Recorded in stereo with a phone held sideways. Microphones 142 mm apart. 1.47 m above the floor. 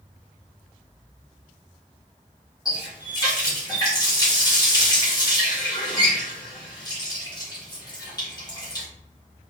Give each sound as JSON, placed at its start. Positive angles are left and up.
{"t": 2.6, "sound": "a running tap", "side_deg": 25, "distance_m": 1.4}